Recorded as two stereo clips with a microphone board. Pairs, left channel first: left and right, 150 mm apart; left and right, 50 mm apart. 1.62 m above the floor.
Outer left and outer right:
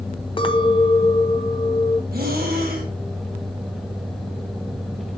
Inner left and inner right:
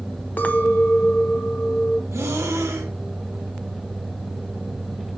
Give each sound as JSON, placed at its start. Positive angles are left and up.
{"t": 0.4, "sound": "a clink", "side_deg": 35, "distance_m": 0.6}
{"t": 2.1, "sound": "breathing", "side_deg": -85, "distance_m": 1.5}